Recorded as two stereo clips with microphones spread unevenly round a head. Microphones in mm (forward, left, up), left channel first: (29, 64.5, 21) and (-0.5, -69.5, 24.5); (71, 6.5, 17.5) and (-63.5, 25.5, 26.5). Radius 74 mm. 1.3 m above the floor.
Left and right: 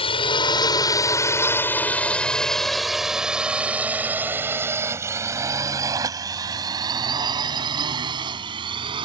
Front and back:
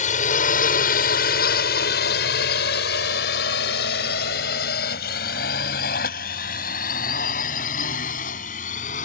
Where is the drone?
25° left; by 9.1 s 50° right.